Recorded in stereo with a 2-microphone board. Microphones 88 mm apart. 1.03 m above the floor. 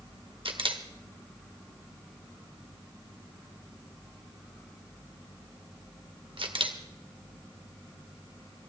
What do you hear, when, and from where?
0.5 s a camera shutter: 75° right (ahead or behind), 1.6 m